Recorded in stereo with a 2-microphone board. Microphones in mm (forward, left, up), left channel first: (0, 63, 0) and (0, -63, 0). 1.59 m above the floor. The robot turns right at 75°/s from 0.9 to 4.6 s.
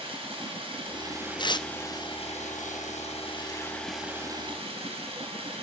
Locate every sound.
0.0 s running water: 50° right, 7 m; by 5.6 s 130° right, 7 m
1.4 s tearing paper: 35° left (ahead or behind), 0.6 m